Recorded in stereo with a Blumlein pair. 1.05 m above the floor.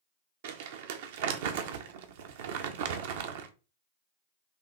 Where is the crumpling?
55° right, 0.6 m.